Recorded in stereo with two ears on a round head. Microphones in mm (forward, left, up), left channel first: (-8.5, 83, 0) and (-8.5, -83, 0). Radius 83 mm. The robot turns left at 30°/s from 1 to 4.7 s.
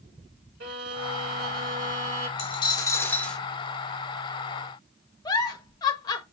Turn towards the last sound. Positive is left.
turn(degrees=20)  # may be behind; listen again after turning